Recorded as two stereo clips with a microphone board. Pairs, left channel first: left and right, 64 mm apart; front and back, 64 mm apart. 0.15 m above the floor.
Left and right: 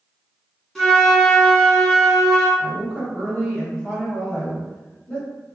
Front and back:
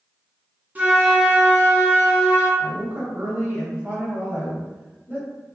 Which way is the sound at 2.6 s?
165° left.